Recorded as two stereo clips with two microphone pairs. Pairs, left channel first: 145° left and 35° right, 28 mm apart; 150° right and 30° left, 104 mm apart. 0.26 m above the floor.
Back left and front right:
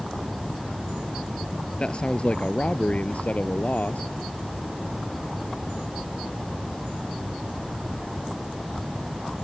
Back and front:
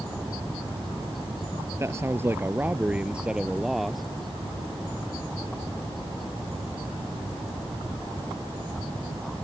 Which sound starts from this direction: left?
A man speaking, at 1.8 s.